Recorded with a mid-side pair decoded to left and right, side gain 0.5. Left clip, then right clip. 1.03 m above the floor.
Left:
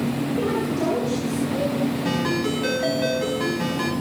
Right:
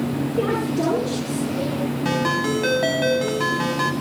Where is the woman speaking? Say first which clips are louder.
Right 3 dB; 30° right, 9.5 m.